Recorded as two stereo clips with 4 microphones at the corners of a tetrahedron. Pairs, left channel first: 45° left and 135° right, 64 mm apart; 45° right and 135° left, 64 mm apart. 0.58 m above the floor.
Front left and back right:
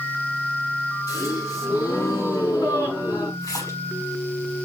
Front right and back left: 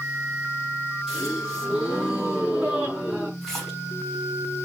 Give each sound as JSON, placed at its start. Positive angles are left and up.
{"t": 1.1, "sound": "a gasp", "azimuth_deg": 50, "distance_m": 6.0}
{"t": 3.4, "sound": "a splash", "azimuth_deg": 40, "distance_m": 5.5}